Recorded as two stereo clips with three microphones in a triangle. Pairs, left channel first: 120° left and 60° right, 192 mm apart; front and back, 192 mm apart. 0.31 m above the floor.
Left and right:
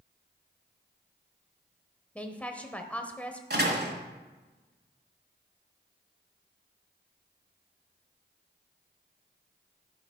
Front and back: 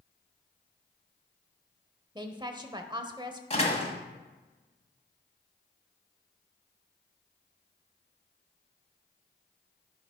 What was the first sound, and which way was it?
A woman speaking, 170° right.